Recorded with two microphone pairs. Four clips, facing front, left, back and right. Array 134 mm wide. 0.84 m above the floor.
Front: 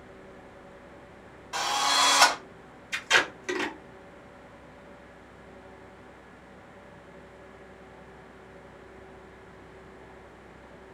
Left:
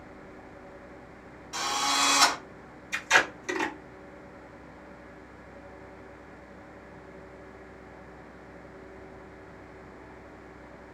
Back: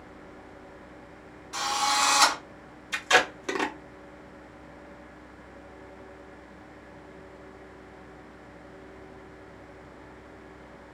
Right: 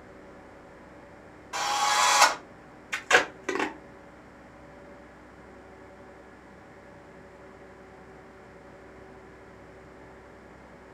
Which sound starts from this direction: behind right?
Tape being pulled, at 2.9 s.